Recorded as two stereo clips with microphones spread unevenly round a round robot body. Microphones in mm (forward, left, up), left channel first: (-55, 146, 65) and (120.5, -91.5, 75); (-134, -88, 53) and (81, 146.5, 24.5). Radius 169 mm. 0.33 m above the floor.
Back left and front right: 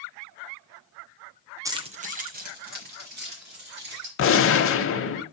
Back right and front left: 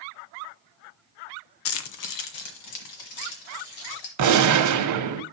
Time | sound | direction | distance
1.6 | keys jangling | 130° right | 0.6 m
4.2 | a gunshot | 80° left | 0.7 m